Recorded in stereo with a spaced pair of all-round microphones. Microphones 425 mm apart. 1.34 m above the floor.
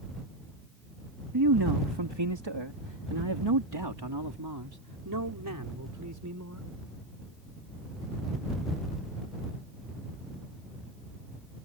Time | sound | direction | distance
1.3 | a man speaking | 55° right (ahead or behind) | ?